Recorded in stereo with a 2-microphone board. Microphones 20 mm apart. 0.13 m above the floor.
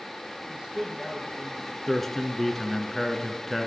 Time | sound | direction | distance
0.5 | a man speaking | 60° right (ahead or behind) | 3 m
1.9 | a man speaking | 10° left (ahead or behind) | 1.3 m